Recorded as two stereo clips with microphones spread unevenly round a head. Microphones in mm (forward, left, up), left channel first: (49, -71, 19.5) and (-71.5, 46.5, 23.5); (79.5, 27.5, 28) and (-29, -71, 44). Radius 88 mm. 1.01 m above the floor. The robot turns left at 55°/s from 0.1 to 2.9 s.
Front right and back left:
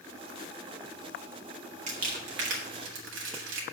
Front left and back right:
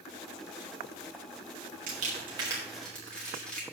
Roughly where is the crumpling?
Behind.